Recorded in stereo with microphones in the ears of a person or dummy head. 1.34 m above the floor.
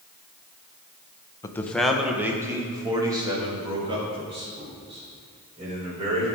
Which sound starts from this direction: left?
A man speaking, at 1.4 s.